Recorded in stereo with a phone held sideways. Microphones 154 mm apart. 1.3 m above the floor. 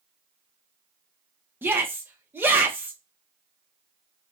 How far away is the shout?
About 1.0 m.